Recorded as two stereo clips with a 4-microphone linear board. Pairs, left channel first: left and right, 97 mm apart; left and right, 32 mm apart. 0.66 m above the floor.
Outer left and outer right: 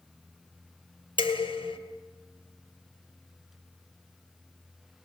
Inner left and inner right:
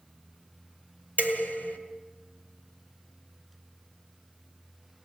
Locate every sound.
1.2 s dishes clattering: 55° left (ahead or behind), 4.5 m